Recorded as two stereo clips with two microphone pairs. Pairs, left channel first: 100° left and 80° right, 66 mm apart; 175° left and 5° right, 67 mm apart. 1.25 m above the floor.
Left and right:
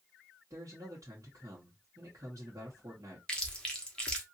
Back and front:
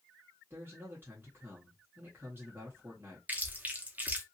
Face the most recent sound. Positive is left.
turn(degrees=35)